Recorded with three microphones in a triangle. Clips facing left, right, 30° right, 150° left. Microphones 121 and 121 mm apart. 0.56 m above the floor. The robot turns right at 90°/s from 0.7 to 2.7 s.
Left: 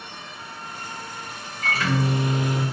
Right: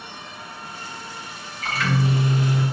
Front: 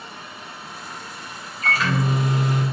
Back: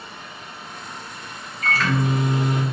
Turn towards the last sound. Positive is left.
turn(degrees=130)